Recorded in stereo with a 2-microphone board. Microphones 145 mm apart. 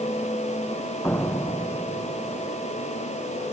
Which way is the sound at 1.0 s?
15° left (ahead or behind).